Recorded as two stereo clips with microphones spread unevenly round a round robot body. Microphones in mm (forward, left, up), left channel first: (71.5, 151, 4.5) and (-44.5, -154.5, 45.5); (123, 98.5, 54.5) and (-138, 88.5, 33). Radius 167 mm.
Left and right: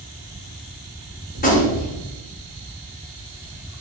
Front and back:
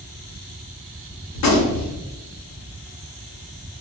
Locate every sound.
1.4 s a gunshot: 10° left, 0.9 m